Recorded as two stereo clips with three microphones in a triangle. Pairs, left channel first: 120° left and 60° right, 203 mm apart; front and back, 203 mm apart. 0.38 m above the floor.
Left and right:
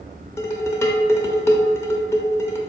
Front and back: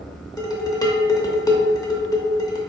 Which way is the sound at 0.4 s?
55° left.